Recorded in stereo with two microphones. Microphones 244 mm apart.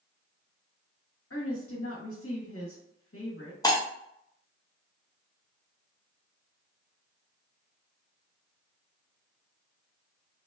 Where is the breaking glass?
15° left (ahead or behind), 0.6 m.